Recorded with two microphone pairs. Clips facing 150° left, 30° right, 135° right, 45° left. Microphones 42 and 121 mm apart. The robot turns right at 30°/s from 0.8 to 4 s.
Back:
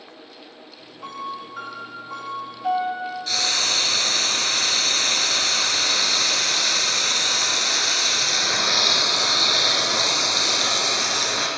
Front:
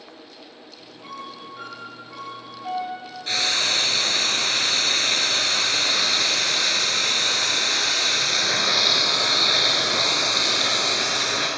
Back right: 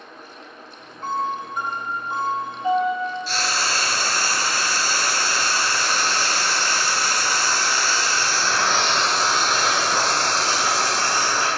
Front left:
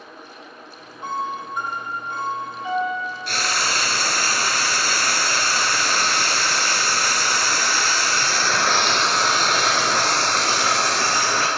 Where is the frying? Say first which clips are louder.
Front 3 dB, even; 25° left, 1.5 m; by 11.5 s 45° left, 1.5 m.